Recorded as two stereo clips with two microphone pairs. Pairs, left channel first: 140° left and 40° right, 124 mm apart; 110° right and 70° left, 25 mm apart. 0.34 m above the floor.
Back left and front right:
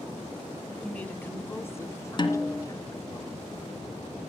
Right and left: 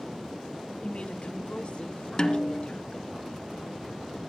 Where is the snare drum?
170° right, 2.5 m.